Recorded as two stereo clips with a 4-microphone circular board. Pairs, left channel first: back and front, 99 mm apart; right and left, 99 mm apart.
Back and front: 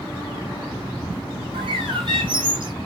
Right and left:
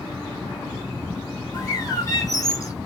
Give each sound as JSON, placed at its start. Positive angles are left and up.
{"t": 1.5, "sound": "a bird", "azimuth_deg": -35, "distance_m": 1.3}